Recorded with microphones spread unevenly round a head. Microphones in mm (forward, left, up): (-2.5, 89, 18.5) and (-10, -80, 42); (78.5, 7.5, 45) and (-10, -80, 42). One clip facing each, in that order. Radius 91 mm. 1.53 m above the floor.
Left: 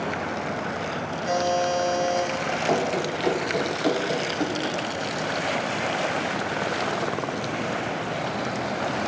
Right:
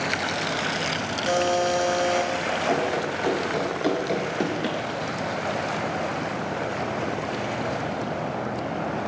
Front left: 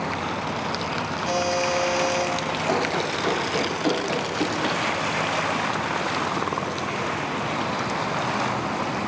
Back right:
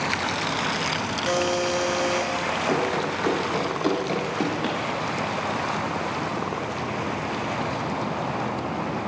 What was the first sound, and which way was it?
A buzzer, 120° right.